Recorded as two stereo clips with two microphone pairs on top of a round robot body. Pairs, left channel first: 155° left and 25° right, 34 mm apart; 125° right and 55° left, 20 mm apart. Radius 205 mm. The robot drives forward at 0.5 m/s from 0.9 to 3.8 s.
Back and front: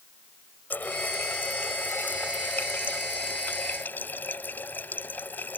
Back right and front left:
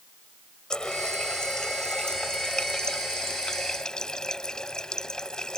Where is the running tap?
165° right; by 5.6 s 170° right.